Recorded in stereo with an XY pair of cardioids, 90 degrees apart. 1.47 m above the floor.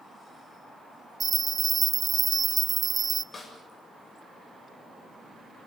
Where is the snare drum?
45° left, 7.5 m.